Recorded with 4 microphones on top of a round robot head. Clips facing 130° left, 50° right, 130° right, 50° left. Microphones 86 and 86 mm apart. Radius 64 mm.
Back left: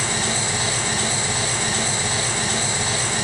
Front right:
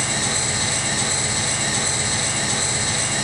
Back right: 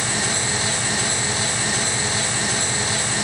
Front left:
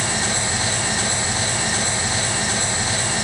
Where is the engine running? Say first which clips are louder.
Back left 1 dB, front left 1 dB; 120° left, 1.4 m.